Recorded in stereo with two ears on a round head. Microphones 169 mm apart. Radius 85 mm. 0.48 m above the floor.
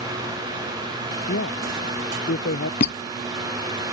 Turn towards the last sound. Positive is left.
turn(degrees=45)  # may be behind; listen again after turning